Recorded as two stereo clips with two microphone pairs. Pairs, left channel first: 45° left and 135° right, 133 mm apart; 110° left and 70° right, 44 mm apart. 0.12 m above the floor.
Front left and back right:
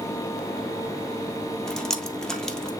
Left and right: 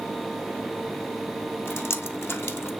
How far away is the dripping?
About 1.2 m.